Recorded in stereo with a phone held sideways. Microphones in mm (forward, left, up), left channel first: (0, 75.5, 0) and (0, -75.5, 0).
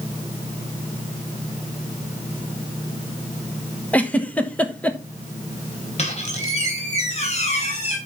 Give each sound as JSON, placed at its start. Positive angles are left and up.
{"t": 3.9, "sound": "a giggle", "side_deg": 10, "distance_m": 1.2}
{"t": 6.0, "sound": "a squeak", "side_deg": 50, "distance_m": 3.0}